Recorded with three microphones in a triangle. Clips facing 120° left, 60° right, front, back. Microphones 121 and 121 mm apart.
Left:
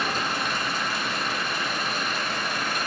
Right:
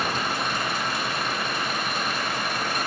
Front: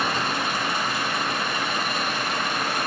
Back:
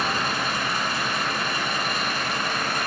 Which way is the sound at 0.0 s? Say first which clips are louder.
Right 1 dB, front 1 dB; 65° right.